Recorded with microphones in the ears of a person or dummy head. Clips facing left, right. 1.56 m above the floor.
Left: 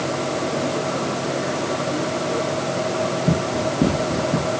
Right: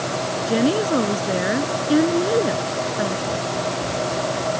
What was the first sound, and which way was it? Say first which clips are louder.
A woman speaking: right 5 dB; 65° right (ahead or behind).